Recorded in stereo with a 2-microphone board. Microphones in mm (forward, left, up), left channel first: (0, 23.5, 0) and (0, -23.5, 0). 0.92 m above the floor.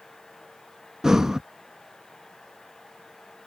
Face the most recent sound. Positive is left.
turn(degrees=-10)  # may be behind; listen again after turning